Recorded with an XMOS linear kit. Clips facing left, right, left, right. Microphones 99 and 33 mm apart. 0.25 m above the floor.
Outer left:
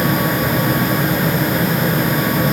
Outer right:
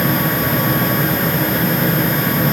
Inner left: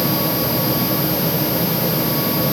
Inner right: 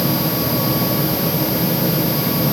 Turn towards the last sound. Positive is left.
No sound to turn to.